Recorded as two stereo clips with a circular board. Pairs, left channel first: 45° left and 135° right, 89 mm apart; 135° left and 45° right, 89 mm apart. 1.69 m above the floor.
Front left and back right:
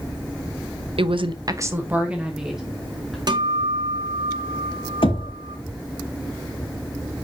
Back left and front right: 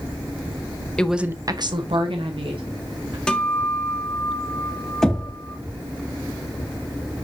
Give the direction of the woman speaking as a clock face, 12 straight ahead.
5 o'clock.